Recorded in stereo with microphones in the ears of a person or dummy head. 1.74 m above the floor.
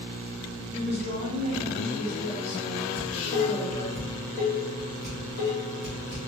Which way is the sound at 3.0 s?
25° left (ahead or behind).